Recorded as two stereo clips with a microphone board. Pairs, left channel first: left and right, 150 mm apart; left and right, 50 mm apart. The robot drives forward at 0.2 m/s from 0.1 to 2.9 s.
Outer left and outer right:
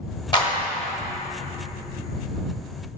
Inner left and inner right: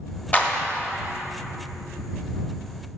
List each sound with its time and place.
0.3 s a clap: 30° left (ahead or behind), 1.3 m